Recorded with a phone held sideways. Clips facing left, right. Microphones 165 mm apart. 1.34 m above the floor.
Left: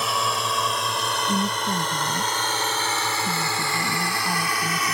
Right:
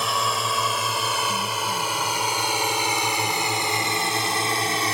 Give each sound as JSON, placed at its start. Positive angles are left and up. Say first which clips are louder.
{"t": 0.0, "sound": "a drone", "louder": "even", "side_deg": 0}
{"t": 1.3, "sound": "a woman speaking", "louder": "left 3 dB", "side_deg": 55}